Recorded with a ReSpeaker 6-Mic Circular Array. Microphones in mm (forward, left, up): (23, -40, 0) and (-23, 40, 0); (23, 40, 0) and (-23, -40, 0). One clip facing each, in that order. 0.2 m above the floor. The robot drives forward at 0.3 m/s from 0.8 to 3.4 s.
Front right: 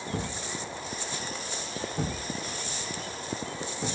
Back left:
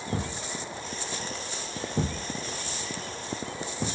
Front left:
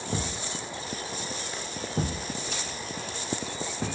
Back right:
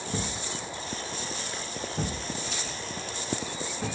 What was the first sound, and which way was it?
A thud, 95° left.